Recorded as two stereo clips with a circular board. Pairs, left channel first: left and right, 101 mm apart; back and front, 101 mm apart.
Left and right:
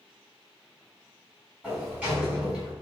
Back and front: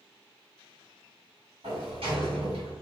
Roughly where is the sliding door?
Ahead.